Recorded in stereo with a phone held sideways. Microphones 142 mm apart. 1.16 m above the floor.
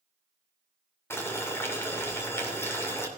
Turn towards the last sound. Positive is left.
turn(degrees=20)  # may be behind; listen again after turning